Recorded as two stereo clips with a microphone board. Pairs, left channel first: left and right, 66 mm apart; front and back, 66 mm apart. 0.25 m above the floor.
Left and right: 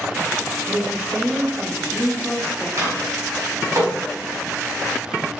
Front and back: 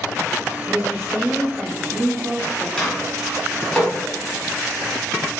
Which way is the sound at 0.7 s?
175° right.